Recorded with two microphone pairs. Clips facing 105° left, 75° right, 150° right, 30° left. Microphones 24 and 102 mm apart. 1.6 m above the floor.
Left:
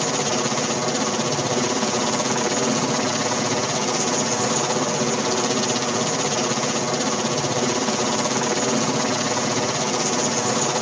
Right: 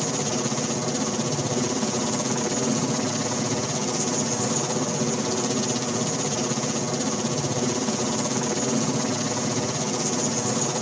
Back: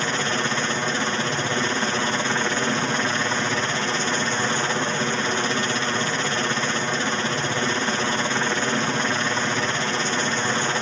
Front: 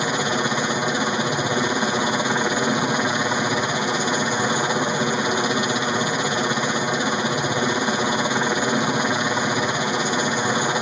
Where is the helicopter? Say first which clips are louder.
Left 4 dB, front 3 dB; 90° left.